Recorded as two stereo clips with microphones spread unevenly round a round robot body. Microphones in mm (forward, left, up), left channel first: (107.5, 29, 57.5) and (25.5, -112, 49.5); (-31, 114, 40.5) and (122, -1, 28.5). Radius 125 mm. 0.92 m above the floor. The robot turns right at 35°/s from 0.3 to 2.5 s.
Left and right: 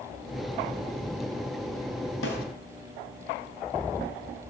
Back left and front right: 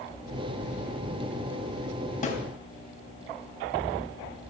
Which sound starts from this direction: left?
A snare drum, at 2.2 s.